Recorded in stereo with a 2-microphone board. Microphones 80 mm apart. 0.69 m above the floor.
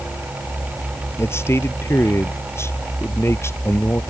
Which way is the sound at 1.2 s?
35° left (ahead or behind).